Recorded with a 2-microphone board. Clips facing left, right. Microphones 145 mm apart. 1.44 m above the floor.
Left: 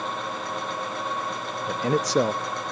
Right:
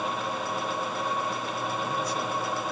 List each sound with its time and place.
1.7 s a man speaking: 75° left (ahead or behind), 0.5 m